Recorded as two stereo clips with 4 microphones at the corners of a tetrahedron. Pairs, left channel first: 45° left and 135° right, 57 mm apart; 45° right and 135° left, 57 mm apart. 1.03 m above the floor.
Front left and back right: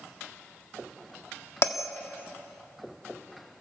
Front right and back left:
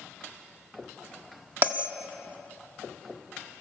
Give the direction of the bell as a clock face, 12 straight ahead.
9 o'clock.